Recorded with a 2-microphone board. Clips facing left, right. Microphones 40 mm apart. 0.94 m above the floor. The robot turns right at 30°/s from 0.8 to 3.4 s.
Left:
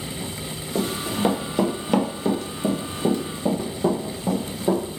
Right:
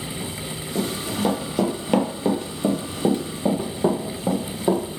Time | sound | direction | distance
0.8 | running footsteps | 40° left (ahead or behind) | 1.1 m